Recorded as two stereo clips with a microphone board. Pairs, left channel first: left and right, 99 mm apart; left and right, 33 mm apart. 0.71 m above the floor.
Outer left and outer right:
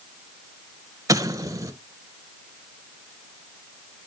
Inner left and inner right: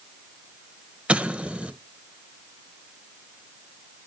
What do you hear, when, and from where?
1.1 s an explosion: 35° right (ahead or behind), 1.0 m